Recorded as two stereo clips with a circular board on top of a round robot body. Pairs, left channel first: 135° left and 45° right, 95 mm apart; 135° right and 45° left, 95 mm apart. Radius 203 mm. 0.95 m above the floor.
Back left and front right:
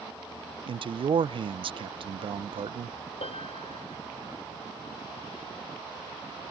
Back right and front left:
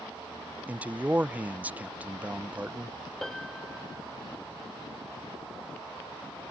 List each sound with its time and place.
0.7 s a man speaking: 30° right
3.2 s a piano: 135° left